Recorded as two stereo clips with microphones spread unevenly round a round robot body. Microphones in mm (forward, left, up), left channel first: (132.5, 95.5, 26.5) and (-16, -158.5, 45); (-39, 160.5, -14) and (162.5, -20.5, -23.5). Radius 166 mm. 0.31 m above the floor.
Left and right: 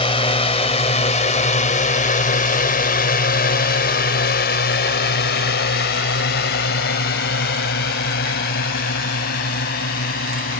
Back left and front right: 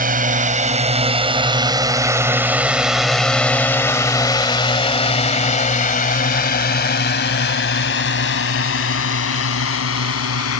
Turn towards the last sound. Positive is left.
turn(degrees=115)